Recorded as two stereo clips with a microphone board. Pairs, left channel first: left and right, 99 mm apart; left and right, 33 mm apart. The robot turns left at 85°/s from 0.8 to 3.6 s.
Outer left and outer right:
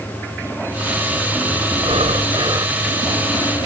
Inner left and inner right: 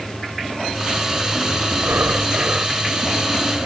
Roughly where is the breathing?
Right.